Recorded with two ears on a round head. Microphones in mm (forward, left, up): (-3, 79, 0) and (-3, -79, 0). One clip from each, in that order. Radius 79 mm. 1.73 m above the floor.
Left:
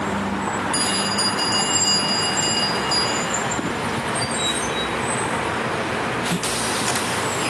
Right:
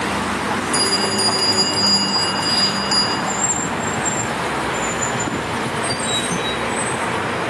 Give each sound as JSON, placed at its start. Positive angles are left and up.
{"t": 0.7, "sound": "a bell", "side_deg": 0, "distance_m": 5.0}